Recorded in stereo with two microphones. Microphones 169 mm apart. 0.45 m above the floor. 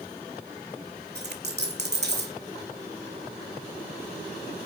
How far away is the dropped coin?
About 1.9 m.